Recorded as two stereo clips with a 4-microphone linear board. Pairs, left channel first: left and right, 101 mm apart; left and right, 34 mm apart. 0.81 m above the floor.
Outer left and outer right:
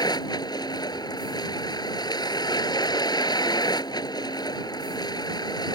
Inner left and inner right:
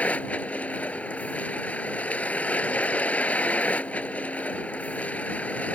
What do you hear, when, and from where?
0.0 s a vehicle: 45° left (ahead or behind)